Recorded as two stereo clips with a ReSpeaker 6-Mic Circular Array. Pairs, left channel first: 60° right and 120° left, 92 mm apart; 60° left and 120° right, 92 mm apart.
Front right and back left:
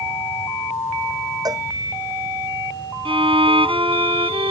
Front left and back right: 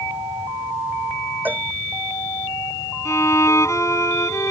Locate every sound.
1.4 s a cowbell: 170° left
3.0 s a violin: 115° left